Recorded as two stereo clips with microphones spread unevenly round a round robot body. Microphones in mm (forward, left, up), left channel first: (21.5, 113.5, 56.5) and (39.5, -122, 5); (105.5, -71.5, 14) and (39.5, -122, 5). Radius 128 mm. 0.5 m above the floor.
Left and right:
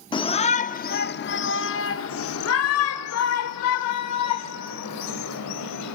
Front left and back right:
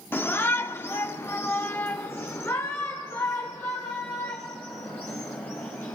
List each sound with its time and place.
0.1 s a shout: 25° left, 1.3 m; by 6.0 s 115° left, 4 m